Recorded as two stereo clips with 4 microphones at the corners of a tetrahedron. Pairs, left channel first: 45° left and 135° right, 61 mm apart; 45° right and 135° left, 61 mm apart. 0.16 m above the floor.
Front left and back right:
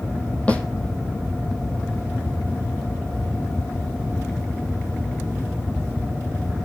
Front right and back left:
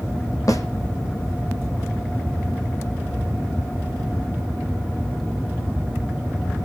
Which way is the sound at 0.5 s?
25° right.